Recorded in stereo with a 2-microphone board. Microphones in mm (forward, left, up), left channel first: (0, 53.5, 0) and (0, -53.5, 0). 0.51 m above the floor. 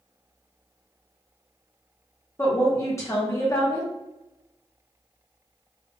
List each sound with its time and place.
2.4 s a woman speaking: 25° left (ahead or behind), 0.8 m